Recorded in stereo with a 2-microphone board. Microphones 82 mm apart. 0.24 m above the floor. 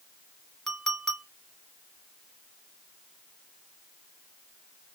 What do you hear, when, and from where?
0.7 s a clink: centre (ahead or behind), 1.7 m